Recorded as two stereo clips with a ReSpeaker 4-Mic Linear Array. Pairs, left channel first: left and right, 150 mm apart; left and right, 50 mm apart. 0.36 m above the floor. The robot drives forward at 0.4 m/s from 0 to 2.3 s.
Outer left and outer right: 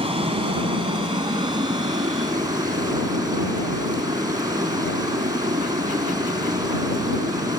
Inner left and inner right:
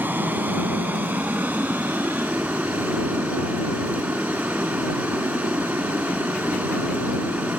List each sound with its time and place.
0.0 s running water: 40° right (ahead or behind), 1.7 m; by 7.6 s 25° right (ahead or behind), 2.5 m